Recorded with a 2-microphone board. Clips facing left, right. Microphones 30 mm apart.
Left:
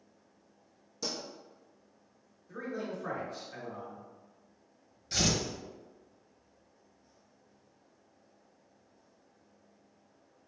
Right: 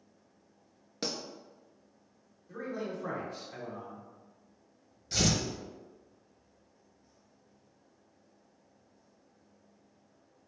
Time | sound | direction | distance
1.0 | a pop | 60° right (ahead or behind) | 0.8 m
2.5 | a man speaking | 15° right (ahead or behind) | 1.1 m
5.1 | tearing paper | centre (ahead or behind) | 0.8 m